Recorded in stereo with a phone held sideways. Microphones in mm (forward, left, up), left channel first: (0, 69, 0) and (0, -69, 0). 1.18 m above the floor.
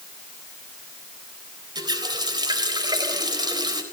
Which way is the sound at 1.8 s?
30° right (ahead or behind).